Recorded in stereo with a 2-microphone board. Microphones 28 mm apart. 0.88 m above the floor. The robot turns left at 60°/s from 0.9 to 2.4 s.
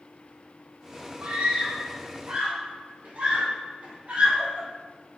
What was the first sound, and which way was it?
A scream, 45° right (ahead or behind).